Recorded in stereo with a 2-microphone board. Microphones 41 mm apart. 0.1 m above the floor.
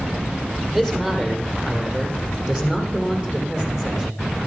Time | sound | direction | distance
0.7 | a man speaking | 10° right (ahead or behind) | 4.5 m